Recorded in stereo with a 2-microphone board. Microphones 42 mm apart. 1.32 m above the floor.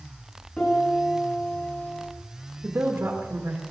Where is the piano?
25° left (ahead or behind), 7.5 m.